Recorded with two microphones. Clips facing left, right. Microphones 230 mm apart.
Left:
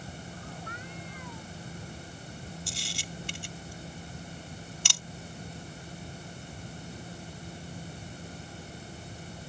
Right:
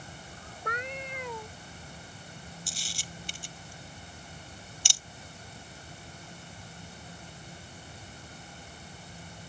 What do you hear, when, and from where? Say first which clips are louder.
0.7 s a cat meowing: right 5 dB; 80° right
2.7 s a camera shutter: left 5 dB; 70° left (ahead or behind)